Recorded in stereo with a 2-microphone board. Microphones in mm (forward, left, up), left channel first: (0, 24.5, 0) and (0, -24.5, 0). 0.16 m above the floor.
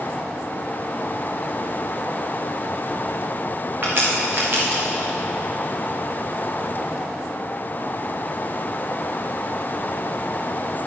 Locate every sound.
3.8 s a crack: 40° right (ahead or behind), 3 m